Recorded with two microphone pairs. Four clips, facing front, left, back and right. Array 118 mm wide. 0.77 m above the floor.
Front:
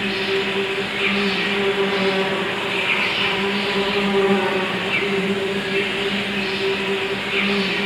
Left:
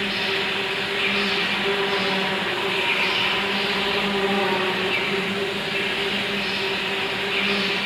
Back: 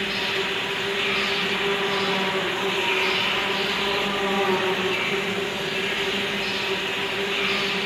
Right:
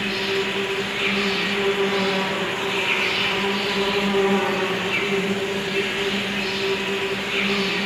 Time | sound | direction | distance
0.0 | an insect | 15° right | 7 m